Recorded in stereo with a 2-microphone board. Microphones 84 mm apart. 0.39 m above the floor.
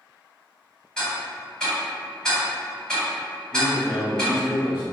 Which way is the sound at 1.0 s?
10° left (ahead or behind).